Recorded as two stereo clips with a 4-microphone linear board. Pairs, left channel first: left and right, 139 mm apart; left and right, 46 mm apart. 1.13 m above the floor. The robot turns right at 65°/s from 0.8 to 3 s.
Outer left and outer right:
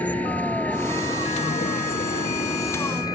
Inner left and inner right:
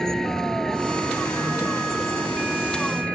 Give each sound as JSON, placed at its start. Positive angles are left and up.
{"t": 0.0, "sound": "a vehicle", "azimuth_deg": 10}